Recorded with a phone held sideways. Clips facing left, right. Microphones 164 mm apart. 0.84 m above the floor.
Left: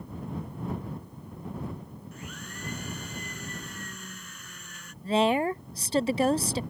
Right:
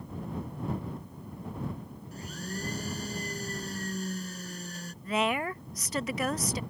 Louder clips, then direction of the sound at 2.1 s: Right 8 dB; 35° right (ahead or behind).